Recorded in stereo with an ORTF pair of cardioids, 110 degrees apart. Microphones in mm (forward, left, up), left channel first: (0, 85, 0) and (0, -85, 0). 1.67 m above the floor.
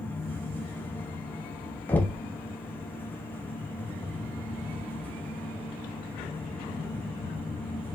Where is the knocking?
10° left, 0.9 m.